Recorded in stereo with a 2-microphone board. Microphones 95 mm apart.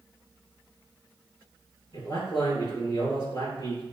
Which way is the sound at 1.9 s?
60° left (ahead or behind).